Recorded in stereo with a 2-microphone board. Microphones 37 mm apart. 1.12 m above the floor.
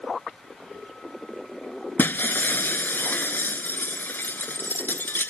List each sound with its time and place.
2.0 s breaking glass: 65° left (ahead or behind)